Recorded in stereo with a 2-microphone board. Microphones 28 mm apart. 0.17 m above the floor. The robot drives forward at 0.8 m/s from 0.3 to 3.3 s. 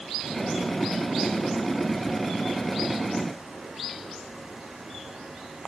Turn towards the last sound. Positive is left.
No sound to turn to.